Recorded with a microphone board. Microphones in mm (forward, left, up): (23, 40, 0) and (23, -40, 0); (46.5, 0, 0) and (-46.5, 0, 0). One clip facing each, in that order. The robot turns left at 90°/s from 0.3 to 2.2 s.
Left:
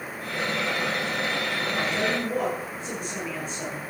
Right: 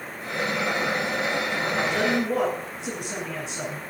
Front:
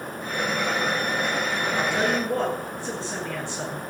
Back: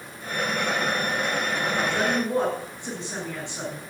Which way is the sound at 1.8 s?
65° right.